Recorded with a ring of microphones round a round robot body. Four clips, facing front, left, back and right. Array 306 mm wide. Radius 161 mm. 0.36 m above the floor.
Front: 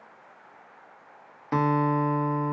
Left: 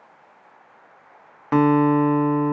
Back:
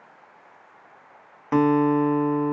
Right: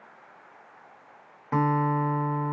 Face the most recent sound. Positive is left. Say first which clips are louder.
# left 8 dB, back 5 dB
turn(degrees=105)